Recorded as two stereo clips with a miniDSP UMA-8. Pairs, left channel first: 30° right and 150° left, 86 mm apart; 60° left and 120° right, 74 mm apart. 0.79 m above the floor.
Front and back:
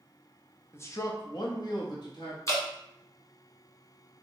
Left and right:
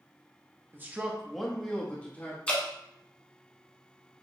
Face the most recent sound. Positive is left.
turn(degrees=-5)